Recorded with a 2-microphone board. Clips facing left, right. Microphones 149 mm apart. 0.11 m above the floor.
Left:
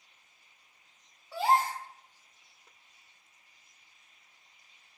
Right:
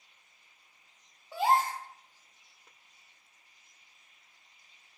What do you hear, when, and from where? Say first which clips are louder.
1.3 s a gasp: even; 15° right (ahead or behind), 0.6 m